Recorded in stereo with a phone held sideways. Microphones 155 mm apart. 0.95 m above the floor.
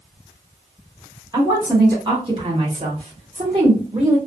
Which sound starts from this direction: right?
A woman speaking, at 1.3 s.